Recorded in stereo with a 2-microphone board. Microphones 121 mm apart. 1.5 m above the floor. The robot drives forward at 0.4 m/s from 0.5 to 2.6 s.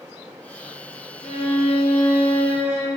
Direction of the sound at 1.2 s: 65° left (ahead or behind).